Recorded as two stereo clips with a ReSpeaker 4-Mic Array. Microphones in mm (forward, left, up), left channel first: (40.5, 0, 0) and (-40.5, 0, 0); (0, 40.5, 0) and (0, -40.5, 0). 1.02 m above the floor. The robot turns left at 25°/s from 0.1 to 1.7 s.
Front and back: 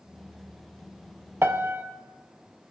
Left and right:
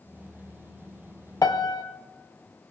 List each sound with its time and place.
1.4 s a piano: 125° left, 0.7 m; by 1.8 s 115° left, 0.7 m